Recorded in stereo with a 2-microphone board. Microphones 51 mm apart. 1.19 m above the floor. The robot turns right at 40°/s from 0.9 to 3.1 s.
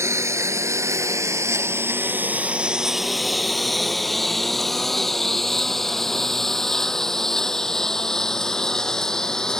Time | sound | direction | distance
0.0 | a lawn mower | 70° right (ahead or behind) | ?